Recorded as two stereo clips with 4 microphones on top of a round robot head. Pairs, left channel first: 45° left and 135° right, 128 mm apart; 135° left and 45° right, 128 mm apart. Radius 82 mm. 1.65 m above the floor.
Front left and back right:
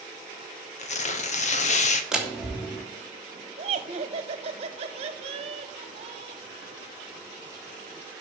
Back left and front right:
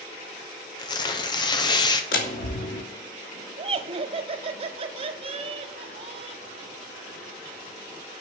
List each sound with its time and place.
0.8 s tearing paper: 75° left, 1.2 m
2.1 s a door slam: 140° left, 3 m
3.6 s laughter: 90° right, 1.3 m